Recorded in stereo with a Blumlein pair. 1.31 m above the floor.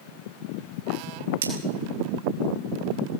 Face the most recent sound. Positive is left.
turn(degrees=-65)